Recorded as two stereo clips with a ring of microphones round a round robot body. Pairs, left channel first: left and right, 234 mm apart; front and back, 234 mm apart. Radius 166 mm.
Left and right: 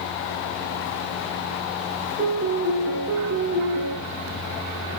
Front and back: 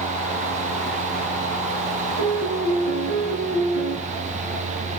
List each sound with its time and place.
2.2 s a piano: 155° right, 5.5 m